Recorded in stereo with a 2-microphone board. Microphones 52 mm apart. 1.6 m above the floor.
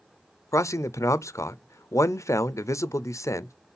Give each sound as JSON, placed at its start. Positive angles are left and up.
{"t": 0.5, "sound": "a man speaking", "side_deg": 75, "distance_m": 0.5}